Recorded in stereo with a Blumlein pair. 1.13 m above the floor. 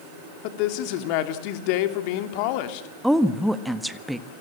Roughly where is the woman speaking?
Ahead.